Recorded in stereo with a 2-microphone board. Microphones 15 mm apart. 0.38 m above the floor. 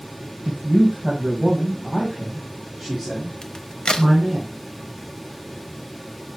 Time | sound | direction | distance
0.5 | a man speaking | 15° right (ahead or behind) | 2 m
3.4 | a crack | 55° left (ahead or behind) | 0.8 m